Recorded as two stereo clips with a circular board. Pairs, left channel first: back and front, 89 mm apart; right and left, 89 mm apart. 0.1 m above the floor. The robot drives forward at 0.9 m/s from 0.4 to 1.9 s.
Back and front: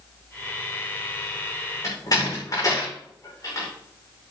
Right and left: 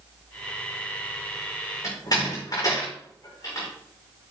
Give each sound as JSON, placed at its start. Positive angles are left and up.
{"t": 1.8, "sound": "a door slam", "azimuth_deg": -135, "distance_m": 5.5}